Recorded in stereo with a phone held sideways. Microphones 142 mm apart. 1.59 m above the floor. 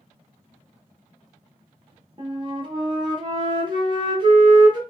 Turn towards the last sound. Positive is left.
turn(degrees=-35)  # may be behind; listen again after turning